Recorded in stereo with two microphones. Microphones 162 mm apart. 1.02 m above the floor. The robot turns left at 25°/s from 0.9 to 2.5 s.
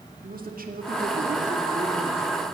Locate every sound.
0.2 s a man speaking: 110° right, 2.5 m; by 2.2 s 140° right, 2.5 m